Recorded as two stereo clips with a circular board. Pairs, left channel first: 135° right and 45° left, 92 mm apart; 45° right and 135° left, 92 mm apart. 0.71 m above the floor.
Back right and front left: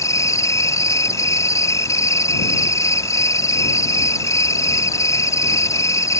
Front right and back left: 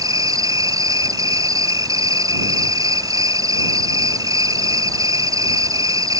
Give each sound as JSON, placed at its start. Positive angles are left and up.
{"t": 0.0, "sound": "an insect", "azimuth_deg": 175}